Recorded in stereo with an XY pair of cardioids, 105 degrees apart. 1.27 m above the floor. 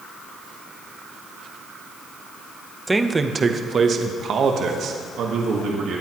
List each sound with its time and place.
2.9 s a man speaking: 15° right, 0.8 m; by 6.0 s 75° right, 1.9 m